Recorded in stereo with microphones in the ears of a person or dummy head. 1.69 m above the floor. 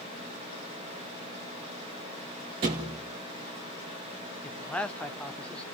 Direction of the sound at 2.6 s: 20° right (ahead or behind).